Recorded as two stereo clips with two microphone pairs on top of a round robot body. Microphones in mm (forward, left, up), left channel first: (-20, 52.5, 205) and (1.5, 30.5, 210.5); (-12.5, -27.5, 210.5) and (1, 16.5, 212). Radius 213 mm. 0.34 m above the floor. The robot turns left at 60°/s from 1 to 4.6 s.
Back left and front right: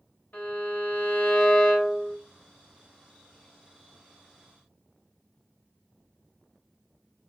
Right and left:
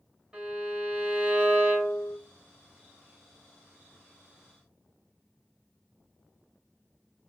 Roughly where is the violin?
Behind left.